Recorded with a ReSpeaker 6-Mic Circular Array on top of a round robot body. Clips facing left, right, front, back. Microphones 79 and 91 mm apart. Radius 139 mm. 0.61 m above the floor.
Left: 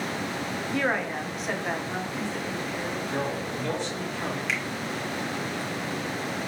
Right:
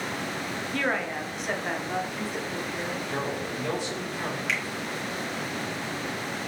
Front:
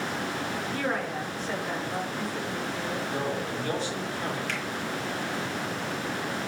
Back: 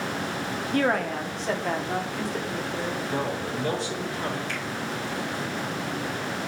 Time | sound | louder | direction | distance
0.7 | a woman speaking | left 1 dB, back 8 dB | 165° left | 1.2 m
3.1 | a man speaking | left 1 dB, back 2 dB | 170° right | 4 m
4.5 | a finger snap | right 2 dB, even | 5° left | 2.5 m